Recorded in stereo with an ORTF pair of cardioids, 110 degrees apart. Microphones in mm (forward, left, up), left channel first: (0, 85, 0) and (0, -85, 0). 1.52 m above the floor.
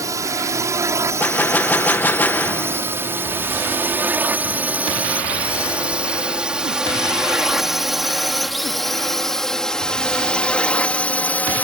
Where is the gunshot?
10° left.